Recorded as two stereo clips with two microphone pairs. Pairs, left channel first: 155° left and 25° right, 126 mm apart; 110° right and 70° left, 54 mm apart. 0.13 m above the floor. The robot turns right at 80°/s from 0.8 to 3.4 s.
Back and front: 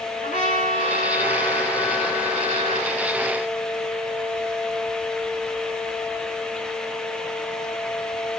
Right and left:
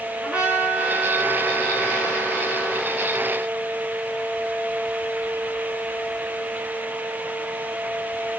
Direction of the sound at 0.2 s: 145° left.